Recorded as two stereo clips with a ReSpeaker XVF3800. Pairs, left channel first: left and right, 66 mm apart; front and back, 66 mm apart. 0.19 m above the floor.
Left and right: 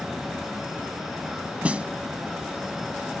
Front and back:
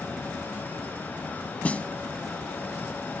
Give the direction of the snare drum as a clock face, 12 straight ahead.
1 o'clock.